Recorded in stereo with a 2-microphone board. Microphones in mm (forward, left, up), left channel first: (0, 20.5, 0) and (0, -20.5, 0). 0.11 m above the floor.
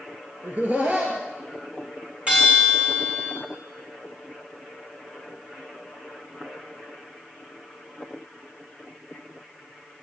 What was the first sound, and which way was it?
Laughter, 40° right (ahead or behind).